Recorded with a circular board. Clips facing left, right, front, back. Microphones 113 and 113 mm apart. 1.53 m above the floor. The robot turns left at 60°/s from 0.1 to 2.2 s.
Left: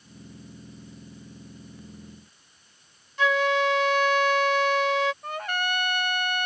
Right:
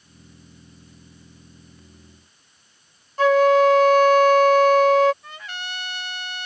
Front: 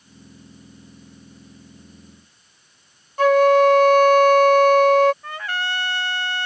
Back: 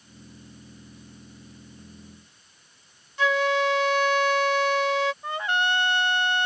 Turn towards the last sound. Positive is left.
turn(degrees=115)